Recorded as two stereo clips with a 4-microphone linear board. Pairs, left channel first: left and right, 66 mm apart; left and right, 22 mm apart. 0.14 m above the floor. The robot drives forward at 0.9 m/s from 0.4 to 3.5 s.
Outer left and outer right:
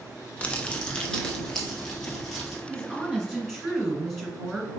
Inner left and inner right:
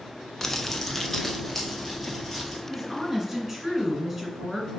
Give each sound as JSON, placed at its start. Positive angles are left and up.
{"t": 0.4, "sound": "crumpling", "side_deg": 20, "distance_m": 0.7}
{"t": 2.7, "sound": "a woman speaking", "side_deg": 0, "distance_m": 1.8}